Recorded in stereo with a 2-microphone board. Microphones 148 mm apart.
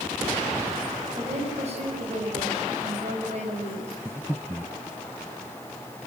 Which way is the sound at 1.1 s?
50° right (ahead or behind).